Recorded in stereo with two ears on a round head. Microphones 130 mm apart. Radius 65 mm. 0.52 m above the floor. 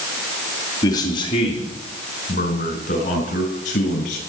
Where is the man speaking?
25° left (ahead or behind), 2.5 m; by 4.2 s 55° left (ahead or behind), 6.5 m.